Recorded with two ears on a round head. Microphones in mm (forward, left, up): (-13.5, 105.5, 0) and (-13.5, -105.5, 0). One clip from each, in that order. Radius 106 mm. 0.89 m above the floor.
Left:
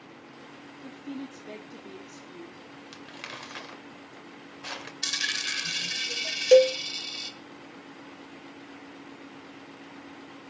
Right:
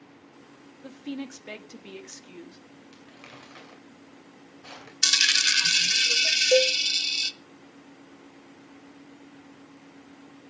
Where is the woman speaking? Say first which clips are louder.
Right 3 dB; 70° right (ahead or behind), 1.9 m.